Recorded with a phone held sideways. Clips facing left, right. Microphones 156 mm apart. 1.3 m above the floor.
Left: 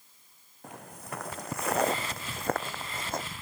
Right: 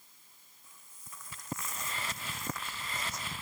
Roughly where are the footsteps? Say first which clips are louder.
Left 18 dB; left.